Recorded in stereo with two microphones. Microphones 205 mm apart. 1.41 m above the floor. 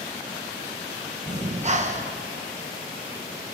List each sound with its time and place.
1.3 s breathing: 35° right (ahead or behind), 1.0 m